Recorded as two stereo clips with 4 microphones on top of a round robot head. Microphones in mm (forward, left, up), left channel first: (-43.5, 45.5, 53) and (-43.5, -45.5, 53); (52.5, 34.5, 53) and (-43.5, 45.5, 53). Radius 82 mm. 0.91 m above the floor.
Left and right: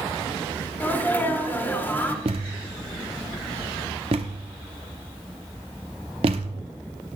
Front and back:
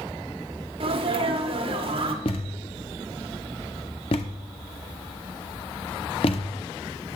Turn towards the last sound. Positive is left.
turn(degrees=-50)